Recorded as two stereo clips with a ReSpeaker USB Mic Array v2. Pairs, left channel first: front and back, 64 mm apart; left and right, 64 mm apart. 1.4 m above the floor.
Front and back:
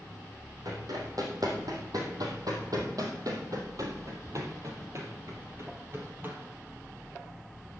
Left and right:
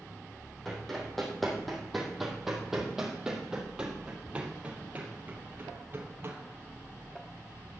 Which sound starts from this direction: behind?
Running footsteps, at 0.7 s.